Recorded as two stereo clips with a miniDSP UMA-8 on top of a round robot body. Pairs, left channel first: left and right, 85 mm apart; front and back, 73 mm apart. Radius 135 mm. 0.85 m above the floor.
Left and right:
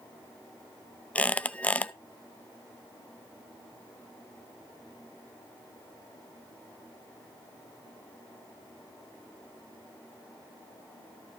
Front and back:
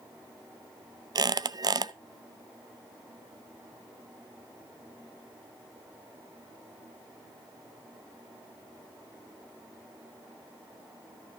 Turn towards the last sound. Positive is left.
turn(degrees=165)